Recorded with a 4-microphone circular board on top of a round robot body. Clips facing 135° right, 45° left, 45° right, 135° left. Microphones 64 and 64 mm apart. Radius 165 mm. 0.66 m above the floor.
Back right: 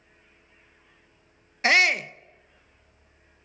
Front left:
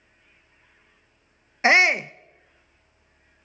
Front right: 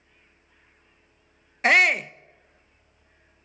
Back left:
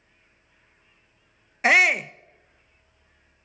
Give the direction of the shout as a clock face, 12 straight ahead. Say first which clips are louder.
Front left 3 dB, even; 10 o'clock.